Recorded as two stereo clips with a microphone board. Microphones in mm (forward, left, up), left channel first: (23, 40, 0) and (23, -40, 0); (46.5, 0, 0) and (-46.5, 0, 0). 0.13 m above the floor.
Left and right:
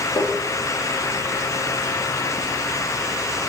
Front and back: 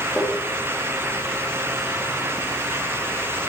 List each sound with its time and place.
0.2 s tapping: 85° left, 2.0 m